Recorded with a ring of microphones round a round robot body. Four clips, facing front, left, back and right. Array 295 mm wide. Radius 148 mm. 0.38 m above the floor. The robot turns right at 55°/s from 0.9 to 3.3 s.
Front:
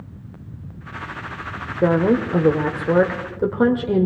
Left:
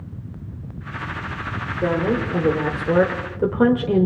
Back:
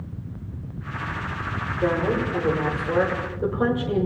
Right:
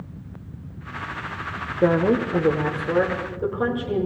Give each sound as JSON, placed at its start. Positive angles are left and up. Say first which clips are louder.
{"t": 1.8, "sound": "a woman speaking", "louder": "right 3 dB, front 6 dB", "azimuth_deg": -35, "distance_m": 1.3}